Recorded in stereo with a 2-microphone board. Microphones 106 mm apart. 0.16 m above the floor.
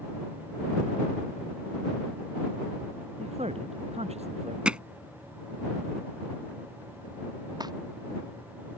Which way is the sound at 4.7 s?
10° right (ahead or behind).